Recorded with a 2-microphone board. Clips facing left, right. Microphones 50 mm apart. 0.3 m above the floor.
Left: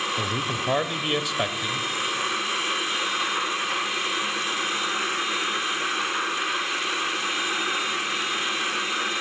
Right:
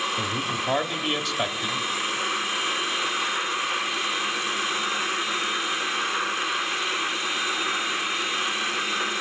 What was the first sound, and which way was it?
A man speaking, 5° left (ahead or behind).